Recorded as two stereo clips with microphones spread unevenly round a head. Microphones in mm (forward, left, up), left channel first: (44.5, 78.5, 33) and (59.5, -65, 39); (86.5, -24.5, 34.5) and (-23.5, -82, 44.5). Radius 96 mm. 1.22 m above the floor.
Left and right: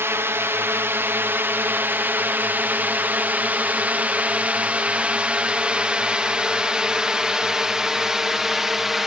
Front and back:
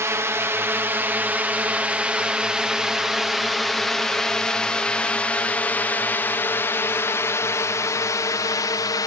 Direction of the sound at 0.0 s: 125° right.